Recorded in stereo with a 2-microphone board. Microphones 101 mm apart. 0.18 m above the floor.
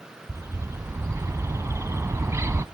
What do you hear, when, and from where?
0.3 s a bird: 30° right (ahead or behind), 0.5 m